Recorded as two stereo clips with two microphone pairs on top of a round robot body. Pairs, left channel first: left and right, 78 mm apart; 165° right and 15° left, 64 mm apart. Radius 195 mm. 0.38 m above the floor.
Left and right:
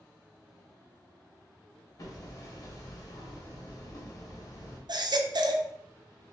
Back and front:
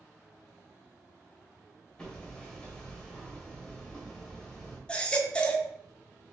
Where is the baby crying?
95° right, 0.6 m.